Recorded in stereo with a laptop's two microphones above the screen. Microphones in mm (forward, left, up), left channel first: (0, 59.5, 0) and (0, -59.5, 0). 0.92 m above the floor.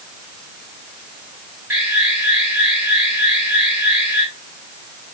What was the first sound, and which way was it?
An alarm, 20° right (ahead or behind).